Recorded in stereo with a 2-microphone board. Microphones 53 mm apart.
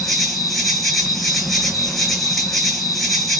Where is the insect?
Centre (ahead or behind), 1.1 m.